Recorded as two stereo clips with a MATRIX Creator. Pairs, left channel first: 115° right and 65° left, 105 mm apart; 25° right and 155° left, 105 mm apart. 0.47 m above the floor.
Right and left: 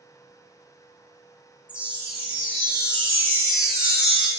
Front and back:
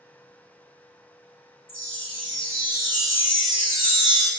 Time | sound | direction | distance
1.7 | a chime | 10° right | 0.7 m